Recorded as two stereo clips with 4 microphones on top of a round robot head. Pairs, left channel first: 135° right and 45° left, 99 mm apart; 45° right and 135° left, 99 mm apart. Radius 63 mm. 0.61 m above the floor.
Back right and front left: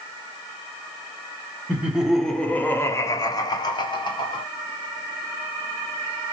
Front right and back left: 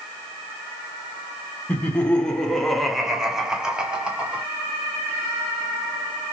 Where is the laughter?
5° left, 0.8 m; by 4.5 s 150° right, 1.4 m.